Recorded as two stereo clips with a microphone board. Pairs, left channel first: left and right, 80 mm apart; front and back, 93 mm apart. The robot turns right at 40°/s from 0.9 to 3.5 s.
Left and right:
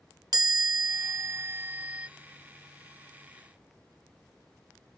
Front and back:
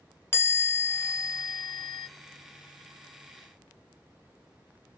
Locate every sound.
0.3 s a chime: 65° right, 0.5 m; by 2.1 s 15° right, 0.5 m